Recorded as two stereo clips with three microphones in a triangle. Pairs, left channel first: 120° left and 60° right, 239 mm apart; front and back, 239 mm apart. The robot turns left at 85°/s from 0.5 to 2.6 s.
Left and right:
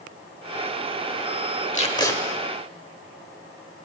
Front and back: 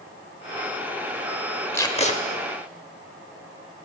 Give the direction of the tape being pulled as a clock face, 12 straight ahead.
9 o'clock.